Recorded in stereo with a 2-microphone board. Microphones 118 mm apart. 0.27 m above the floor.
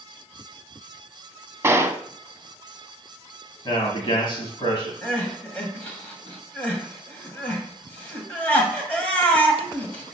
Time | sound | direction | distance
1.6 | a gunshot | 25° right (ahead or behind) | 0.7 m
3.6 | a man speaking | 45° left (ahead or behind) | 2 m
5.0 | crying | 15° left (ahead or behind) | 1.7 m